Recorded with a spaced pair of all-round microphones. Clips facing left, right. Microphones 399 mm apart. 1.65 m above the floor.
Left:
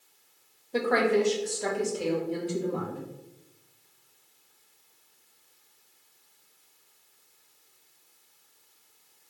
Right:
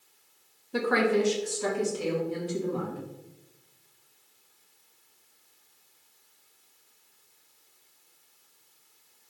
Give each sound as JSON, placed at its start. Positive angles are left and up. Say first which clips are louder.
{"t": 0.7, "sound": "a woman speaking", "louder": "left 1 dB", "side_deg": -20, "distance_m": 0.9}